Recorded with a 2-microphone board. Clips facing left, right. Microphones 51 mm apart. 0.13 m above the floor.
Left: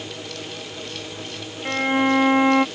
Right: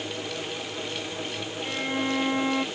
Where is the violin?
40° left (ahead or behind).